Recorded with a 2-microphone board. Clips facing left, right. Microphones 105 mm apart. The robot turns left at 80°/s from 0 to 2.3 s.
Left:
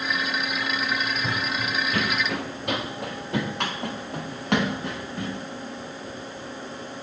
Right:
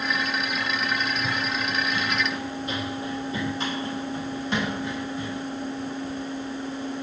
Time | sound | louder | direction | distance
1.2 | running footsteps | even | 15° left (ahead or behind) | 0.5 m